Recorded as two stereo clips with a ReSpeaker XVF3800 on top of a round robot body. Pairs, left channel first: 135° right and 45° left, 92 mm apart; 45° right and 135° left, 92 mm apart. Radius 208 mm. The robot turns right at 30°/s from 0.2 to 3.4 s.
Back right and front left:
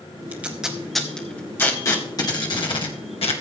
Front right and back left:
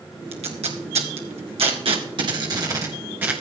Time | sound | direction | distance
0.3 | tape being pulled | 115° left | 1.9 m